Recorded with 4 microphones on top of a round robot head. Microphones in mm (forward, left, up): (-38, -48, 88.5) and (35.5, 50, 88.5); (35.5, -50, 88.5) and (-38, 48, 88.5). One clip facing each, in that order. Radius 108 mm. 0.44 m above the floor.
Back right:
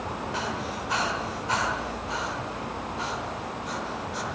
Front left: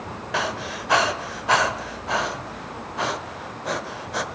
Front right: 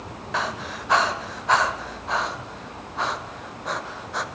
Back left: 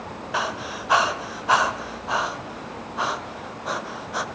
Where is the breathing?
45° left, 1.2 m.